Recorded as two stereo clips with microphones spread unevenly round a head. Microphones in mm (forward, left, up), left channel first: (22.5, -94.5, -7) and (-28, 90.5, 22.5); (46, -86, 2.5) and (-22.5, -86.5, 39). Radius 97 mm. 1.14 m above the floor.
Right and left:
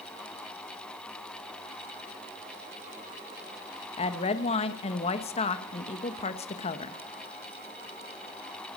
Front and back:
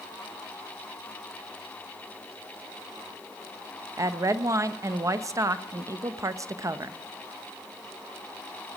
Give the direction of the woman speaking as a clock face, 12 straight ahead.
4 o'clock.